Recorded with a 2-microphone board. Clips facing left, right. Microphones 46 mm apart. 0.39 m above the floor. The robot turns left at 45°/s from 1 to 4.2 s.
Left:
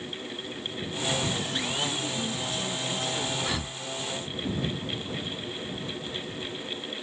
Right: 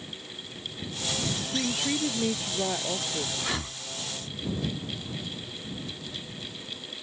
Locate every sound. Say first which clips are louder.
1.5 s a woman speaking: right 1 dB; 70° right; by 3.3 s 150° right
3.4 s breathing: left 1 dB; 5° right (ahead or behind); by 3.8 s 25° right (ahead or behind)